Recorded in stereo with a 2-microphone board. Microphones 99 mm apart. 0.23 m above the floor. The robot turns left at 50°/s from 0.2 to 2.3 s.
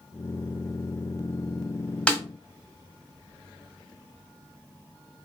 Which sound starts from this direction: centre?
A snare drum, at 2.1 s.